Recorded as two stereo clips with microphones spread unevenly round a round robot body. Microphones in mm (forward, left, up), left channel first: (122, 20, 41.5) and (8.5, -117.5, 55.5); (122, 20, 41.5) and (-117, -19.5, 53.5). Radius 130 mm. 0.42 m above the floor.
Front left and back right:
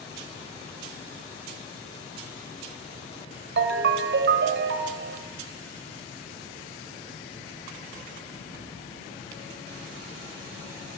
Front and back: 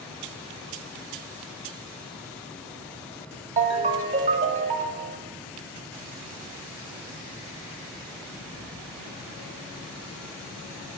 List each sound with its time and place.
3.6 s a ringtone: 105° right, 1.1 m